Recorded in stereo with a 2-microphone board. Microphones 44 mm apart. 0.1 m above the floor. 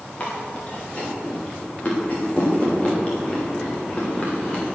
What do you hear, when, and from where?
0.2 s chewing: 30° left (ahead or behind), 6.5 m